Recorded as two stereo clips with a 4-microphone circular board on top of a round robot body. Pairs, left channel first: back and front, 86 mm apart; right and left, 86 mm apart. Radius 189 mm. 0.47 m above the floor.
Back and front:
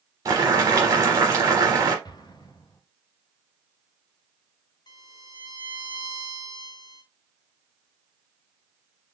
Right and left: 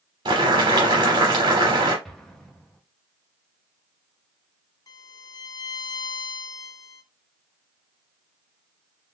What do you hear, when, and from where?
0.2 s boiling: 55° left, 0.8 m
2.0 s an explosion: straight behind, 1.1 m
4.9 s a violin: 140° right, 0.5 m